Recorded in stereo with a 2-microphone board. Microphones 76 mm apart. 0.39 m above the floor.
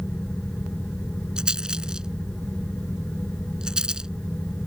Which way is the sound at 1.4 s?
10° right (ahead or behind).